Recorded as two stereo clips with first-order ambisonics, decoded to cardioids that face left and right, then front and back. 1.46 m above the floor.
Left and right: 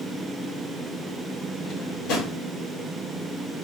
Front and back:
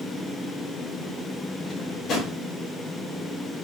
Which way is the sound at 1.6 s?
60° left.